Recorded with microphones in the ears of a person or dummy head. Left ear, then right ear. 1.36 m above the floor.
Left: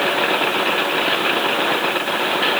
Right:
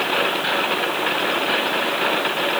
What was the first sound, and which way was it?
Only background noise.